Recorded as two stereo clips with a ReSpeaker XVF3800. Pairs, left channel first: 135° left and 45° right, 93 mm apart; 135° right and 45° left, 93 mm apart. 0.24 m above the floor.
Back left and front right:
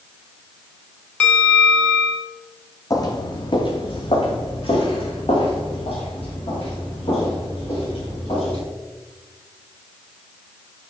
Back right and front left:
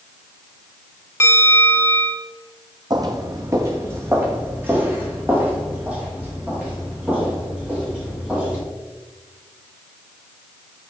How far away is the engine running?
I don't hear an engine running.